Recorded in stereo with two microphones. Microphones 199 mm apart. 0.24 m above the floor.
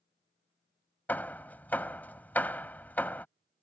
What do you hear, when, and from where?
1.1 s hammering: 10° left (ahead or behind)